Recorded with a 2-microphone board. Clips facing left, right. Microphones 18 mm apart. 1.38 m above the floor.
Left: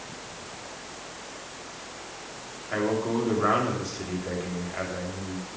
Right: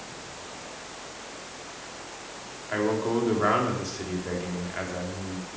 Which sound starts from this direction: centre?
A man speaking, at 2.7 s.